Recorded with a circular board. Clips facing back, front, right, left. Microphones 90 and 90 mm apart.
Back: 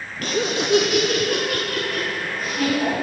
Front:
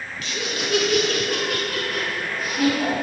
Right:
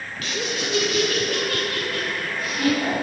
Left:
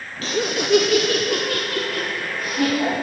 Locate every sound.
0.2 s laughter: 145° left, 0.5 m; by 2.9 s 85° left, 2.5 m